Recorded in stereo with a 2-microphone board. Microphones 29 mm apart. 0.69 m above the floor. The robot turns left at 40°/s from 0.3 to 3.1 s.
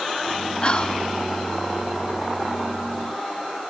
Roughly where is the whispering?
Left.